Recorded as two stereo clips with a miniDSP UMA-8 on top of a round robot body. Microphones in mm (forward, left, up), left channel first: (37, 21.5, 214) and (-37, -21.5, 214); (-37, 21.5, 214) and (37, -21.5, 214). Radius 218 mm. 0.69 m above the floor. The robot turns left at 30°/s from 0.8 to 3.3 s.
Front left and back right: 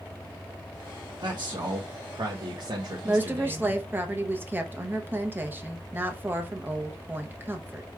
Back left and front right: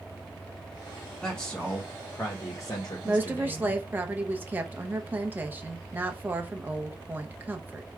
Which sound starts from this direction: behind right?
A man speaking, at 1.2 s.